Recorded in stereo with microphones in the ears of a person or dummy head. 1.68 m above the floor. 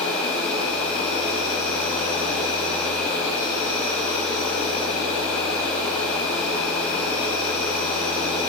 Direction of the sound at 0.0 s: 40° left (ahead or behind).